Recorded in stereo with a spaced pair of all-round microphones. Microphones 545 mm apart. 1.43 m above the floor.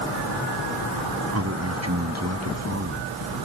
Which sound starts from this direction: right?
A man speaking, at 1.3 s.